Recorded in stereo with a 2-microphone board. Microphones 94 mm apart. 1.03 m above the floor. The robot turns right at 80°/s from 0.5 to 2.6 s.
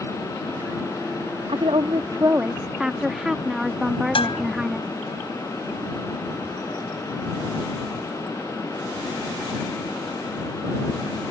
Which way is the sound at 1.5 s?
95° right.